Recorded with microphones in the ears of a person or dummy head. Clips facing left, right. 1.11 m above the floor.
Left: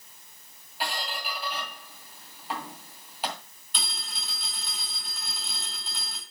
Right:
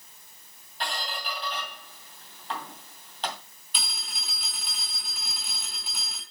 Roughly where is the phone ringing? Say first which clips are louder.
Left 1 dB; centre.